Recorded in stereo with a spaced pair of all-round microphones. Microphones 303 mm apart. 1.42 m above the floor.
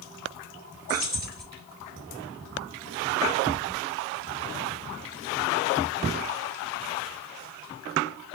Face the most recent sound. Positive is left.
turn(degrees=-30)  # may be behind; listen again after turning